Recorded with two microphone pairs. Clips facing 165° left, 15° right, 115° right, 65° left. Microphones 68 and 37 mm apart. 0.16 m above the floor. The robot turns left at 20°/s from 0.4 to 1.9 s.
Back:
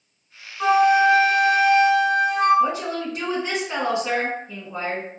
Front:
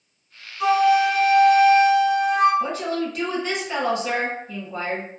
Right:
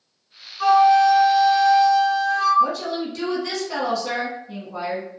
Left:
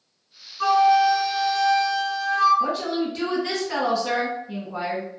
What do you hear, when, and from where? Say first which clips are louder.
0.6 s a flute: back 1 dB, right 3 dB; 165° left, 1.4 m; by 2.5 s 140° left, 1.4 m
2.6 s a woman speaking: back 2 dB, right 2 dB; 125° left, 1.2 m